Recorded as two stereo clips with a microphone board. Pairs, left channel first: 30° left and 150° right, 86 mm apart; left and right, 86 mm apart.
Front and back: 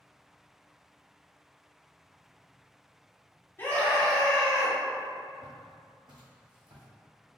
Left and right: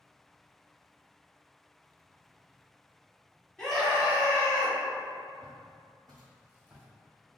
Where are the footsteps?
105° right, 1.9 m; by 6.8 s 155° right, 1.5 m.